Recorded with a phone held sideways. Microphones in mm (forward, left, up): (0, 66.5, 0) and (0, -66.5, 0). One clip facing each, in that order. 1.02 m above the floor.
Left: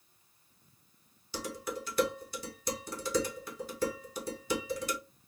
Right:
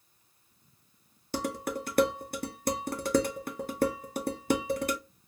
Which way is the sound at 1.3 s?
55° right (ahead or behind).